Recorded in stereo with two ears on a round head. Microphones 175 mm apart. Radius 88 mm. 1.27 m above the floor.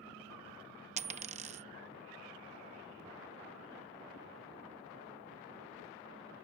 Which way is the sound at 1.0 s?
35° right (ahead or behind).